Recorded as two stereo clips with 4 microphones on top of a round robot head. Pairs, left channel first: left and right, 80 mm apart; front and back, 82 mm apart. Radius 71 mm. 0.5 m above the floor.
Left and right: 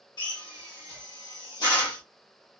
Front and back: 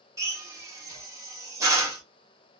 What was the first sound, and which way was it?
A drill, 130° left.